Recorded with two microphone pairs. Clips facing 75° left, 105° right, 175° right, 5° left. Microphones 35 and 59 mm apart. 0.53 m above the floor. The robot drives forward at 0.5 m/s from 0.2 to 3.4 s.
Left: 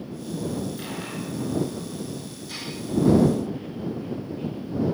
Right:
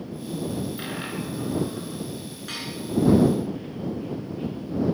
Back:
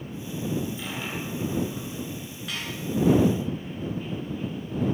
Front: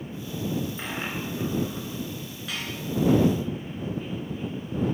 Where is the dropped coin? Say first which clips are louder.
Right 1 dB, front 1 dB; 40° right, 2 m; by 2.0 s 50° right, 1.7 m.